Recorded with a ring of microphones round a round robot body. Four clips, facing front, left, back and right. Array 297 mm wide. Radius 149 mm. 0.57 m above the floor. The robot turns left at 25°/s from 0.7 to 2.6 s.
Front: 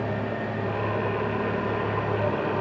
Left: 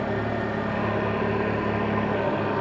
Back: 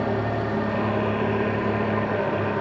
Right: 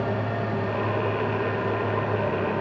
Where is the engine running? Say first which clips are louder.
Left 1 dB, back 4 dB; 160° left, 5.5 m; by 2.6 s 110° left, 5.5 m.